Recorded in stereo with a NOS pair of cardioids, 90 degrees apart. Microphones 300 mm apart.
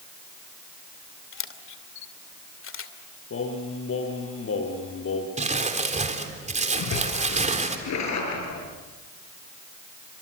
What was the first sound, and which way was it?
A camera shutter, 45° left.